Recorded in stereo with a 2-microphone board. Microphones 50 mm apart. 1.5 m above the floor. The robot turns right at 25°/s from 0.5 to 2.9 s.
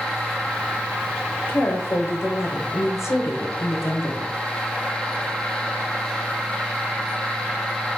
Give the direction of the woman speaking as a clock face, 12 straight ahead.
10 o'clock.